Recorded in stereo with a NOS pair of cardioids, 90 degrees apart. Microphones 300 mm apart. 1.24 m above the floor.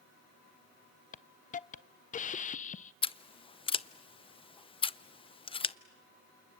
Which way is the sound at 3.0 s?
20° left.